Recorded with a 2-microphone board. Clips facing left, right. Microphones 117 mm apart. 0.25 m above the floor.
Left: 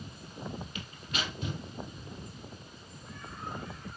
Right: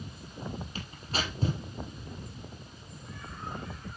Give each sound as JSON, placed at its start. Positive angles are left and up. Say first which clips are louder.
{"t": 0.8, "sound": "tearing paper", "louder": "right 3 dB", "side_deg": -35, "distance_m": 2.5}